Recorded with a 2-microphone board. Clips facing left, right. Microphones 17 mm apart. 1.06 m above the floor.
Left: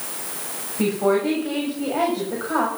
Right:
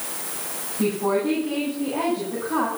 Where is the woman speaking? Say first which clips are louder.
Left 2 dB; 80° left, 6.5 m.